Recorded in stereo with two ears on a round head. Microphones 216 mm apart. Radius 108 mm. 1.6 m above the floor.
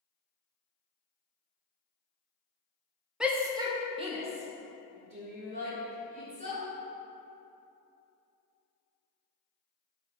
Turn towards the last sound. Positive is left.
turn(degrees=-30)  # may be behind; listen again after turning